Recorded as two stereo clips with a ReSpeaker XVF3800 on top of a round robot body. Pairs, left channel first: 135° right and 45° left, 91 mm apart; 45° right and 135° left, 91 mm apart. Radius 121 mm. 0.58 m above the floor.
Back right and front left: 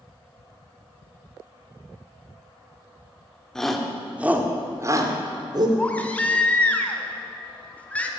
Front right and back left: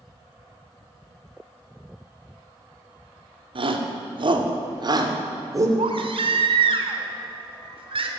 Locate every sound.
3.5 s a shout: 140° left, 2 m; by 5.7 s 80° left, 3 m
5.8 s a baby crying: 150° left, 1.8 m